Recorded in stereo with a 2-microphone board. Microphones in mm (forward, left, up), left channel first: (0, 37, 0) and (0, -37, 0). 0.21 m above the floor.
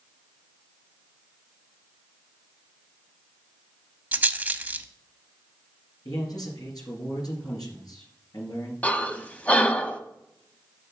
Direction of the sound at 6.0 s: 60° left (ahead or behind).